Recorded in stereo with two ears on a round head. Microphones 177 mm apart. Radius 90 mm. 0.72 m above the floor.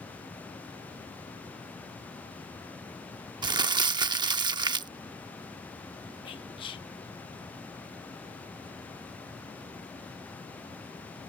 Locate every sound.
3.4 s crumpling: 20° right (ahead or behind)
6.2 s whispering: 25° left (ahead or behind)